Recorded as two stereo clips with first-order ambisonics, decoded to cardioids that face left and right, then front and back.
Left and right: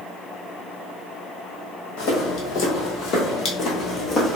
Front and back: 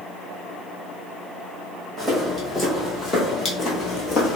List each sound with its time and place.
2.0 s footsteps: 80° left, 1.5 m; by 4.4 s 20° left, 0.8 m